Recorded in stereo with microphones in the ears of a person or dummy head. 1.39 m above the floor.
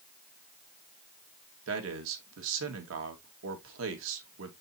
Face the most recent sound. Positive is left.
turn(degrees=-85)